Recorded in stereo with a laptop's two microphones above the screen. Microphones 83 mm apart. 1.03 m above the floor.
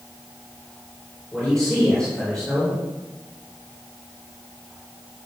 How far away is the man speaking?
About 3.5 m.